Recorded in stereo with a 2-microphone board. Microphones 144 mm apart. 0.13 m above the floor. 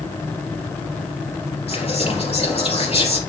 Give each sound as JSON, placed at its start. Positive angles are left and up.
{"t": 1.7, "sound": "whispering", "side_deg": 45, "distance_m": 3.5}